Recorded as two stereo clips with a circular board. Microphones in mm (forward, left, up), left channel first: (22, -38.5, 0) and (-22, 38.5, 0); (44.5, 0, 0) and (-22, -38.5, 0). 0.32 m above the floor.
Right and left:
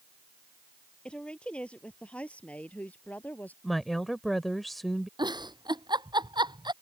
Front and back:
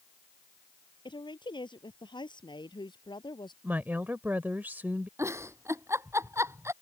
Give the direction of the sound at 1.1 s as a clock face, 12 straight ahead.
11 o'clock.